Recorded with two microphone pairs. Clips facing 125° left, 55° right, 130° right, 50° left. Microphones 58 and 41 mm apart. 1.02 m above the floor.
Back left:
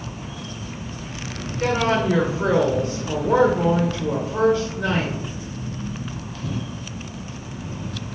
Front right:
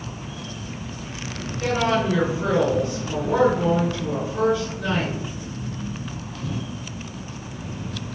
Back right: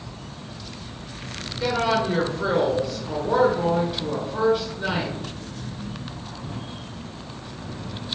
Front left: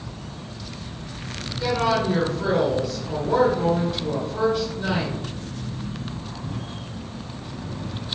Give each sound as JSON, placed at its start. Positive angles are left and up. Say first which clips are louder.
{"t": 1.6, "sound": "a woman speaking", "louder": "back left 1 dB, even", "azimuth_deg": 155, "distance_m": 1.0}